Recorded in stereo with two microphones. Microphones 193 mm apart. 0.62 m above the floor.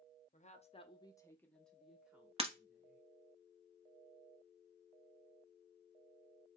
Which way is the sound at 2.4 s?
30° right (ahead or behind).